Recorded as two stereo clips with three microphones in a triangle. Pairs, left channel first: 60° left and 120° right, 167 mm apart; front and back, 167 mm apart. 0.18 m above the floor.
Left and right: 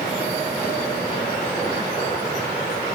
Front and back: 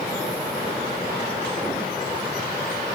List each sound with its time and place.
Only background noise.